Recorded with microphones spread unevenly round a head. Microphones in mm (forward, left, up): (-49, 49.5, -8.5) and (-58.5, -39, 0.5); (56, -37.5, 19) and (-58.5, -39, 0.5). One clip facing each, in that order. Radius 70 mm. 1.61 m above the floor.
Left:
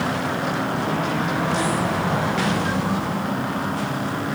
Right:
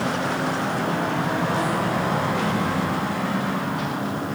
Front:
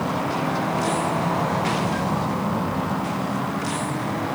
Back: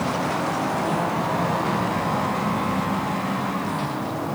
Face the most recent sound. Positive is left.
No sound to turn to.